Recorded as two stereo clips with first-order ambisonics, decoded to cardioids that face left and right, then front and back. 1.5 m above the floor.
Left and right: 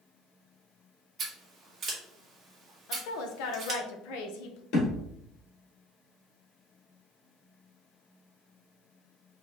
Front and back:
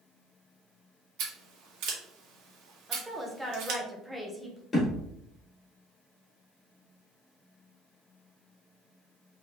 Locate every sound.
1.2 s scissors: 155° right, 1.5 m
2.9 s a woman speaking: 95° left, 1.0 m
4.7 s a thud: 75° left, 2.5 m